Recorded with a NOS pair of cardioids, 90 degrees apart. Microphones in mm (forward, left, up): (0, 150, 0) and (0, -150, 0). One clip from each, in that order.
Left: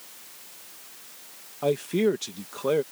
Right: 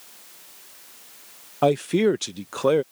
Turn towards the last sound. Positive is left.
turn(degrees=-60)